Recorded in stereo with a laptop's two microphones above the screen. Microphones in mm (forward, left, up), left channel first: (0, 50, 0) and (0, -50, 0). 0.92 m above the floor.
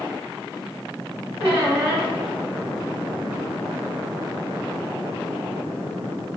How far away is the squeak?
About 1.4 m.